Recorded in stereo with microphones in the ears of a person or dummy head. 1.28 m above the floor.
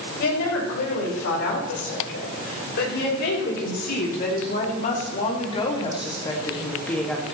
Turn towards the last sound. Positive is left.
turn(degrees=0)  # may be behind; listen again after turning